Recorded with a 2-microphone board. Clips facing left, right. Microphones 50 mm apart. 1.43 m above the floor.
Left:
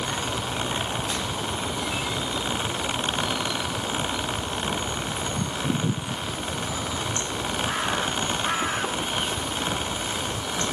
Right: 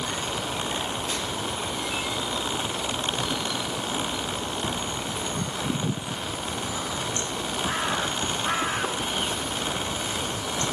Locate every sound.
Only background noise.